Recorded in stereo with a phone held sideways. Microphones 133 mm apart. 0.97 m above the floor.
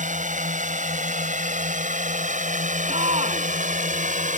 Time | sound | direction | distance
0.0 | a drone | 70° right (ahead or behind) | ?
2.9 | a shout | 55° right (ahead or behind) | ?